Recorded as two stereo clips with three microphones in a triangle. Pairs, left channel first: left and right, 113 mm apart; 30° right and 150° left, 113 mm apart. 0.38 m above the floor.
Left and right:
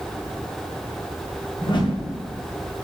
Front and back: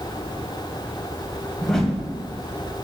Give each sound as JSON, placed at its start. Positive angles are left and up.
{"t": 1.6, "sound": "a whoosh", "azimuth_deg": 55, "distance_m": 2.0}